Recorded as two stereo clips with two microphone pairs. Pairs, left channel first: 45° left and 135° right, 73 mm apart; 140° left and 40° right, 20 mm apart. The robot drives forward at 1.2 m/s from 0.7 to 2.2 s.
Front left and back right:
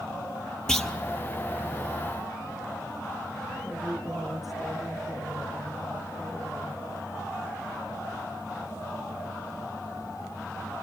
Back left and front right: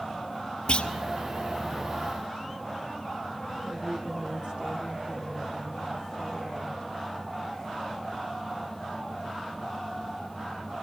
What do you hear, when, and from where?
0.7 s a clunk: 125° left, 1.4 m; by 0.9 s 135° left, 1.5 m
3.6 s a woman speaking: 50° right, 2.5 m